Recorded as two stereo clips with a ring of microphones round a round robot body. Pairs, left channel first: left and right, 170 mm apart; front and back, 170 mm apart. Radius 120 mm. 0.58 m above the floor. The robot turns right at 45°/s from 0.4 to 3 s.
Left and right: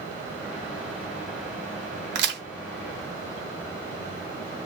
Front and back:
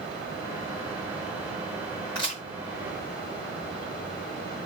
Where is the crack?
75° right, 0.9 m; by 2.4 s 65° right, 0.9 m.